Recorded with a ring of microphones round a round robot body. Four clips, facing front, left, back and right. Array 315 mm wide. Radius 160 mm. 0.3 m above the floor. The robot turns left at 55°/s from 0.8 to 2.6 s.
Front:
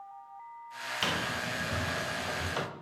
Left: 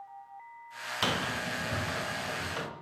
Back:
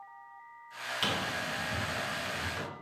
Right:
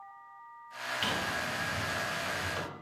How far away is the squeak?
About 1.1 m.